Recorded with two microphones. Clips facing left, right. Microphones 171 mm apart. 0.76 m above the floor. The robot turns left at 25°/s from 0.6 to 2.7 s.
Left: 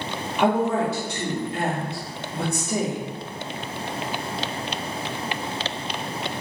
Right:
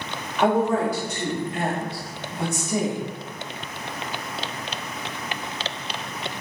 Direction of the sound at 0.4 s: 160° left.